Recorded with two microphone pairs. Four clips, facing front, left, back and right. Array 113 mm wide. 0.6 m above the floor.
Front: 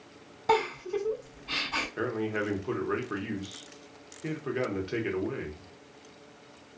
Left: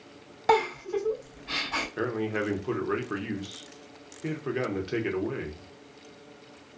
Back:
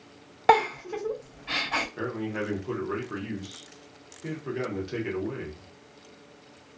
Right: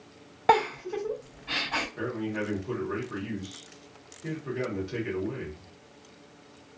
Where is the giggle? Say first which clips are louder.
Right 1 dB, back 5 dB; 165° right, 1.6 m.